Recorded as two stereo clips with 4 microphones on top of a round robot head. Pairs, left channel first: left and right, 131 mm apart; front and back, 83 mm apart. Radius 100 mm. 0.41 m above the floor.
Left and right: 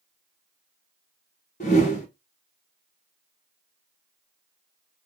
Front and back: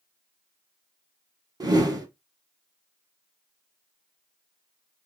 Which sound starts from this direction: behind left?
A whoosh, at 1.6 s.